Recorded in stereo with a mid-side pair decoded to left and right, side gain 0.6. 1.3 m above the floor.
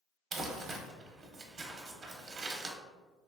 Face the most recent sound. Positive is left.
turn(degrees=-35)